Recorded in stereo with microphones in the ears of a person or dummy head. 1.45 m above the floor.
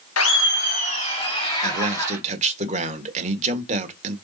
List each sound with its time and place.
0.2 s laughter: 80° left, 0.9 m; by 2.2 s 25° left (ahead or behind), 3.5 m
1.6 s a man speaking: 40° right (ahead or behind), 1.4 m